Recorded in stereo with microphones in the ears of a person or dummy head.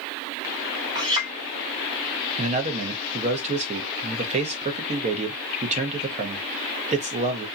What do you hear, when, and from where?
0.9 s a clink: 25° right (ahead or behind), 1.1 m
2.4 s a man speaking: 40° right (ahead or behind), 0.8 m